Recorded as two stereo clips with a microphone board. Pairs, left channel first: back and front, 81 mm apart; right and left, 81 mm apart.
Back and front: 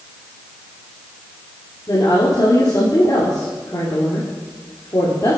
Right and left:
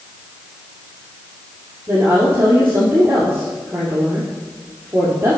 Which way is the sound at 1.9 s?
150° left.